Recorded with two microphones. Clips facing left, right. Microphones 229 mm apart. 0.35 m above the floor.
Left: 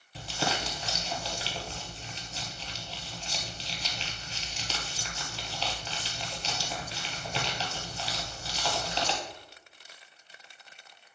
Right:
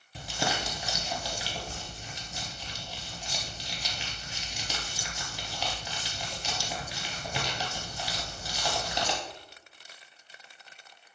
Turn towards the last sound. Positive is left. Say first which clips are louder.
# even
turn(degrees=-10)  # may be behind; listen again after turning